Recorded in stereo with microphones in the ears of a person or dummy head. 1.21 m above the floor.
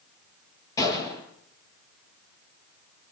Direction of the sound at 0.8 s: 20° left (ahead or behind).